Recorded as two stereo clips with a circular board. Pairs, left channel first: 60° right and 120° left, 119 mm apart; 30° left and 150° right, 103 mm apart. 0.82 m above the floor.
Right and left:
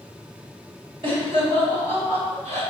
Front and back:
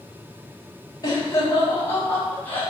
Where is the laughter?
80° left, 2.5 m; by 2.6 s 100° left, 4.5 m.